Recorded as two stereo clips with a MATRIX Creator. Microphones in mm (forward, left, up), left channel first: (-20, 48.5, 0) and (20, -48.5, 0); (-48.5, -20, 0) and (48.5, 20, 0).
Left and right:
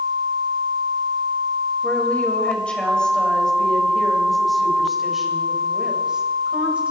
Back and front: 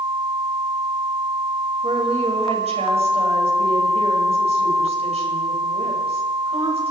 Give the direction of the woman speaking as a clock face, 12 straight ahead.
11 o'clock.